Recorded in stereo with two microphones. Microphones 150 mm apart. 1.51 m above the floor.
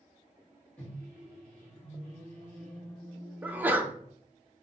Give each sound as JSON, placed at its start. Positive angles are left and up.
{"t": 0.8, "sound": "a microwave", "side_deg": 10, "distance_m": 1.0}
{"t": 3.4, "sound": "a sneeze", "side_deg": -10, "distance_m": 0.5}